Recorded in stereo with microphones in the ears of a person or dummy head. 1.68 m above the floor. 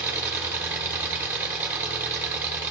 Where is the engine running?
5° right (ahead or behind), 1.0 m.